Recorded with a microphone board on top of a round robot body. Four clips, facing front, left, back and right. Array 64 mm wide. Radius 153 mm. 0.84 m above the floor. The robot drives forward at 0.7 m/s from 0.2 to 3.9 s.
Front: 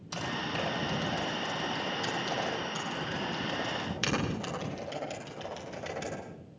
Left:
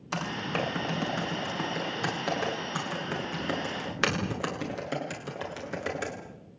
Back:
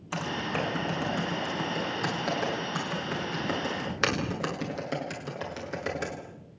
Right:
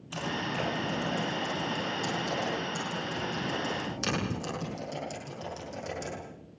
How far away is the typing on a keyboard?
About 6.5 m.